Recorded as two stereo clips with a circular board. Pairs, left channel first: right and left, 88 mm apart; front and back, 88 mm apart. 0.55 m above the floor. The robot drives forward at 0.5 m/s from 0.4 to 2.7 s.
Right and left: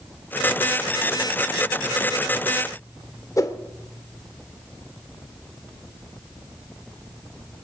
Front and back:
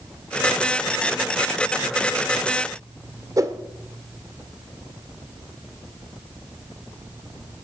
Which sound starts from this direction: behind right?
A whoosh, at 3.4 s.